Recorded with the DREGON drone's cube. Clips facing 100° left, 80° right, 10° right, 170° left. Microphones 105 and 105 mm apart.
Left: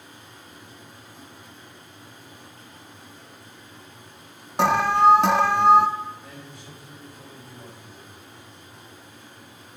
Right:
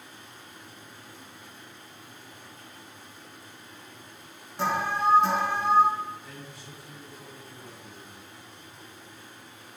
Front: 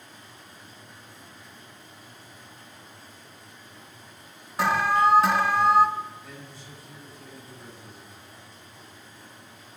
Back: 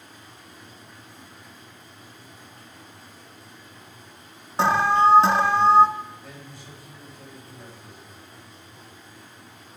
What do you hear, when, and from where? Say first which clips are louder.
0.0 s running water: left 1 dB, back 1 dB; 130° left, 5 m
4.6 s an alarm: left 9 dB, back 3 dB; 110° left, 0.7 m
6.2 s a man speaking: left 2 dB, back 1 dB; 130° left, 5 m